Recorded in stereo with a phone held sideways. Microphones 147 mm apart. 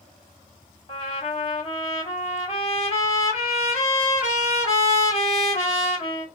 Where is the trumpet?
45° left (ahead or behind), 1.6 m.